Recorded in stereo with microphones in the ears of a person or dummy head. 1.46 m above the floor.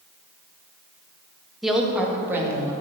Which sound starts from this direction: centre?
A woman speaking, at 1.6 s.